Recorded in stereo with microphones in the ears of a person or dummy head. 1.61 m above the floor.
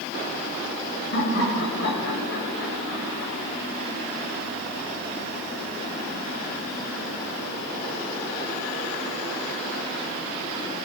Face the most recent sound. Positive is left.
turn(degrees=85)